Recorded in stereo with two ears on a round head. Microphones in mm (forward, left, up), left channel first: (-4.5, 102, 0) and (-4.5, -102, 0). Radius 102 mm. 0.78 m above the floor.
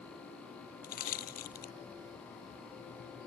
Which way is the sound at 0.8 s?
40° left (ahead or behind).